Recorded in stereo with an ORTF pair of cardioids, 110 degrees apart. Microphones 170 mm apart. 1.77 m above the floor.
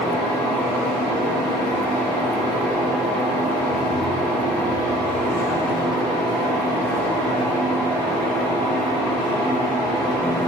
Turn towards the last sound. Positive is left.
turn(degrees=10)